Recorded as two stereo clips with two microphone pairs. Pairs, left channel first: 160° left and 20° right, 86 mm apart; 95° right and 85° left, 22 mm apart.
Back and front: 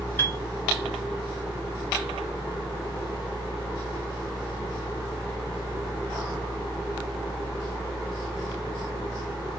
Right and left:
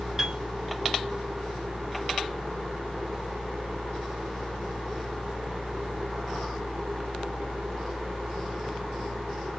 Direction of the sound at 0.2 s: 135° left.